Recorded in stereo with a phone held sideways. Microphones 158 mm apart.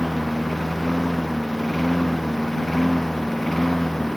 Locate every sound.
0.0 s a lawn mower: centre (ahead or behind)